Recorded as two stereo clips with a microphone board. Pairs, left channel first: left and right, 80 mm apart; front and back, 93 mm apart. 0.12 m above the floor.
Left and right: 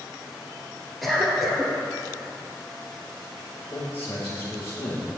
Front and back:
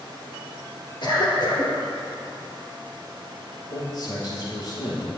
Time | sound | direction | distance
1.0 | a cough | straight ahead | 2.5 m
3.7 | a man speaking | 30° left | 2.5 m